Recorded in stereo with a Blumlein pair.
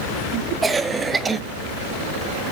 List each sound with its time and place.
0.6 s a cough: 10° right, 0.6 m